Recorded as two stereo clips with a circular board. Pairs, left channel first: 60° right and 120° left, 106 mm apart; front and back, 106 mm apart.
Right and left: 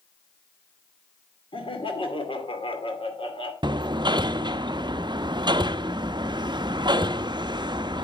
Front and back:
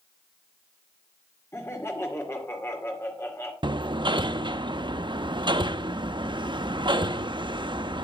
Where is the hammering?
150° left, 0.5 m.